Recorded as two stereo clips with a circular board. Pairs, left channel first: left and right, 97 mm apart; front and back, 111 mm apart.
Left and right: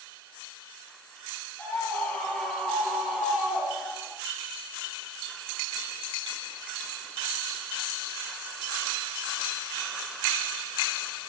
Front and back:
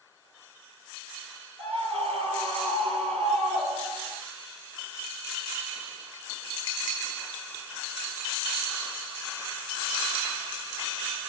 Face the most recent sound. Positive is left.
turn(degrees=-160)